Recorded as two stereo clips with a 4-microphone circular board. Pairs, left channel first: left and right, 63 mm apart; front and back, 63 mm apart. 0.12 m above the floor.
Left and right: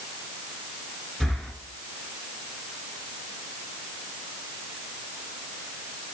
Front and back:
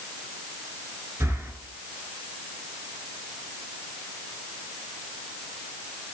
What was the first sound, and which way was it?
Breathing, 170° left.